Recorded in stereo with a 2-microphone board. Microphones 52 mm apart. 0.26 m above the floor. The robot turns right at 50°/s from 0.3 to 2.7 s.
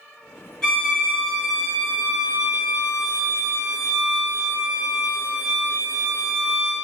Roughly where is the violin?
Behind left.